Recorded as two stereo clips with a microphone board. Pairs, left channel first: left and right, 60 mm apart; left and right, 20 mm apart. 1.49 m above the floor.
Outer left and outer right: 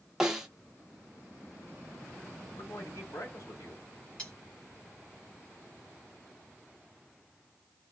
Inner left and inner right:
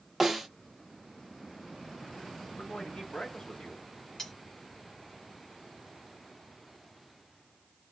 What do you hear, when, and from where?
0.2 s a snare drum: 10° right (ahead or behind), 0.8 m
2.5 s a man speaking: 80° left, 1.5 m
4.2 s cutlery clinking: 15° left (ahead or behind), 1.8 m